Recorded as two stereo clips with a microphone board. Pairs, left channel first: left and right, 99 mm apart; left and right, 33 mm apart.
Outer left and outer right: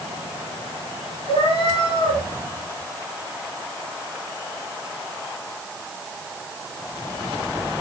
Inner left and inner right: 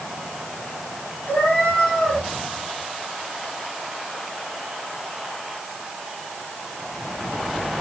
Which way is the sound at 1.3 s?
60° left (ahead or behind).